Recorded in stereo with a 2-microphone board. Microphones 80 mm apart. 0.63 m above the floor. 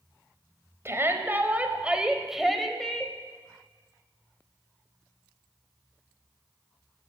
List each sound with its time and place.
0.8 s a shout: 35° right (ahead or behind), 3 m; by 3.1 s 10° left (ahead or behind), 3 m